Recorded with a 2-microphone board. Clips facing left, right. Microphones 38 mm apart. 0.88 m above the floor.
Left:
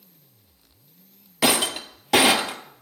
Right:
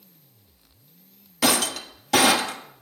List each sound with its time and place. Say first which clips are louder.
1.4 s breaking glass: left 1 dB; 25° left (ahead or behind), 1.2 m